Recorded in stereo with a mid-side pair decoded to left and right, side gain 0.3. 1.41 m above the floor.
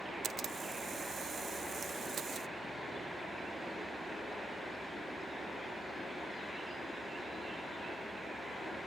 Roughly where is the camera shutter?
Right.